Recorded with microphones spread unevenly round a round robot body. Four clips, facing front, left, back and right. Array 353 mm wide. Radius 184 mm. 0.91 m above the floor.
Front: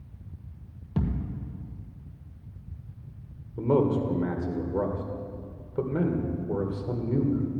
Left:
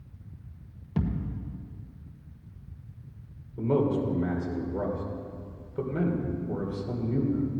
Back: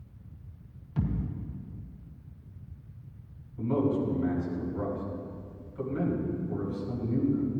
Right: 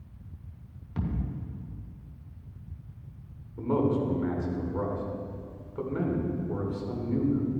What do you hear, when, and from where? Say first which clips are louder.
1.0 s a thud: left 3 dB, front 2 dB; 30° left, 1.9 m
3.6 s a man speaking: left 1 dB, front 4 dB; 10° left, 3 m